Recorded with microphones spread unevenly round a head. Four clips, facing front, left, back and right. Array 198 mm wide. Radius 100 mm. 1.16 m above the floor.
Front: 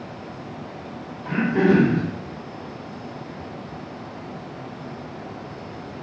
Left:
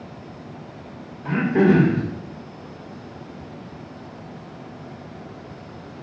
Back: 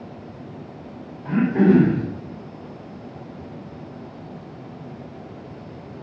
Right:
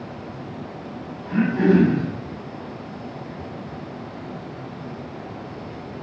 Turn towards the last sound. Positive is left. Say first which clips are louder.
# left 1 dB, back 2 dB
turn(degrees=80)